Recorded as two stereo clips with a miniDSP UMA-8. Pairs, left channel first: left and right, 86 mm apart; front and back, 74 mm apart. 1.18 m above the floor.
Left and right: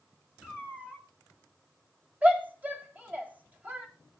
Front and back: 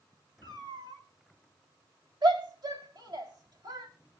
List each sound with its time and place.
0.4 s a cat meowing: 170° right, 5 m
2.2 s a shout: 160° right, 3 m